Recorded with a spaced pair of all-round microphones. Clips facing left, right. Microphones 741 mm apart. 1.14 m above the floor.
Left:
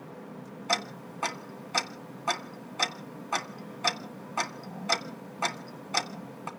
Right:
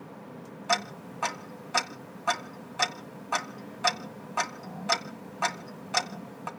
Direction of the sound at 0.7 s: 45° right (ahead or behind).